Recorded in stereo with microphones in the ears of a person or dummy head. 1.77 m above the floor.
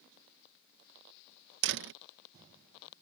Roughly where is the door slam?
Right.